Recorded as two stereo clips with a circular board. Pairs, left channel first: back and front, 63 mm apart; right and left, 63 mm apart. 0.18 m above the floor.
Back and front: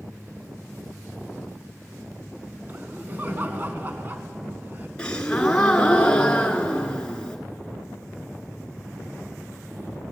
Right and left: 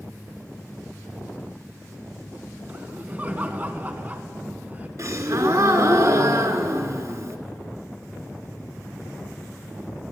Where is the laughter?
40° left, 1.6 m.